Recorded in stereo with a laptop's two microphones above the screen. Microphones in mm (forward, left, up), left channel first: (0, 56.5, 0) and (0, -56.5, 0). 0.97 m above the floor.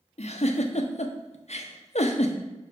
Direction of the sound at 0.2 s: 75° left (ahead or behind).